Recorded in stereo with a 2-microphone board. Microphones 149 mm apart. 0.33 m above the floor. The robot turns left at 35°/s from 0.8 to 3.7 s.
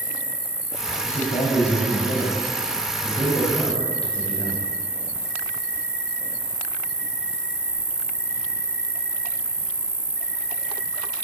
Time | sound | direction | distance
0.0 | an insect | 110° left | 1.0 m
1.0 | a man speaking | 100° left | 1.4 m